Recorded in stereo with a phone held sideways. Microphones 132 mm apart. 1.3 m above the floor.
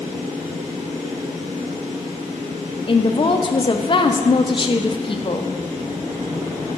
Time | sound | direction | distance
0.0 | a fan | 70° right (ahead or behind) | 2.5 m
2.9 | a woman speaking | 40° left (ahead or behind) | 0.6 m